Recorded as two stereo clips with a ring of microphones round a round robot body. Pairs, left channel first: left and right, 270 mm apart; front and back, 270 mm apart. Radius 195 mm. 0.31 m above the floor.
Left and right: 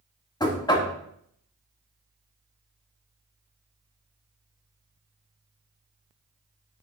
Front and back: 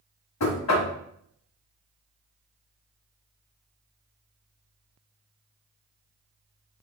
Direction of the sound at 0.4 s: 15° left.